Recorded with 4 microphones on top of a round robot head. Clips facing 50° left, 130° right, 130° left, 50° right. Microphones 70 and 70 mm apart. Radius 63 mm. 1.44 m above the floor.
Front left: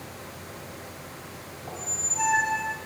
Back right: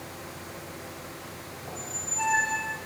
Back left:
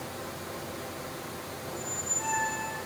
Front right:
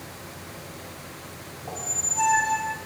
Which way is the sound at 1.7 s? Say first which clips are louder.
Front left 2 dB, front right 4 dB; 25° right.